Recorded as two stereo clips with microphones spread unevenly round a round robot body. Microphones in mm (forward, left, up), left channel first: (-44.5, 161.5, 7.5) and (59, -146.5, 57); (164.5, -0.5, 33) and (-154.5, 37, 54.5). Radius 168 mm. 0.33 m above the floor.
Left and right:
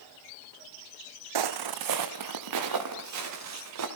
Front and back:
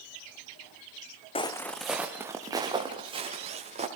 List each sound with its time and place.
1.4 s footsteps: 80° right, 1.0 m; by 3.9 s 115° right, 3.5 m